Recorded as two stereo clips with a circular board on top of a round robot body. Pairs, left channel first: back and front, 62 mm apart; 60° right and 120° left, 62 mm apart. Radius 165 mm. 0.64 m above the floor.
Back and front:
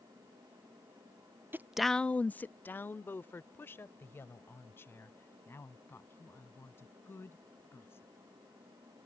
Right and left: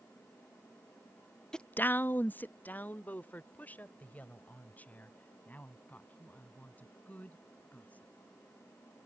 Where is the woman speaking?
10° left; by 8.1 s 125° right.